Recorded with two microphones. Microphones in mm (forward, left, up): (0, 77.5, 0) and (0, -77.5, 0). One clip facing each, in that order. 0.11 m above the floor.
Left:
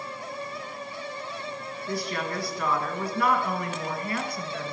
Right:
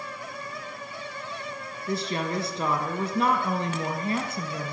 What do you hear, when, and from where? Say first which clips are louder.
1.9 s a woman speaking: right 2 dB; 25° right (ahead or behind), 1.4 m